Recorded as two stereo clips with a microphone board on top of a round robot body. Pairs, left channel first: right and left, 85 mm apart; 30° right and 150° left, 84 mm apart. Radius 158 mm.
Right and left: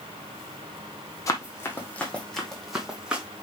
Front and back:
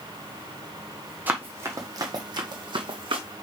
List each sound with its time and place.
1.3 s running footsteps: 140° right, 1.2 m; by 3.2 s 170° left, 1.7 m